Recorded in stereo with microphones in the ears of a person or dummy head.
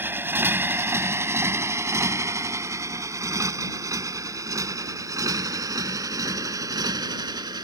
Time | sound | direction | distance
0.0 | a motorcycle | 10° right (ahead or behind) | ?